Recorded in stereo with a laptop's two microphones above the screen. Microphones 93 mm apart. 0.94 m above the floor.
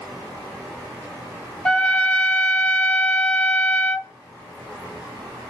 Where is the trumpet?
10° left (ahead or behind), 0.5 m.